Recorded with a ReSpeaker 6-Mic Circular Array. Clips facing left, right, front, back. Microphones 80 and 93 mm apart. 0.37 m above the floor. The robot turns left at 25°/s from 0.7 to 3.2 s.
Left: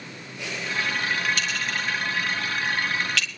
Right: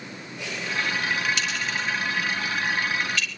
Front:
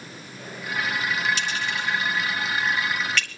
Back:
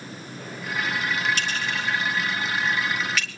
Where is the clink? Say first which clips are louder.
Even, even; 140° left, 4 m; by 3.3 s 95° left, 4 m.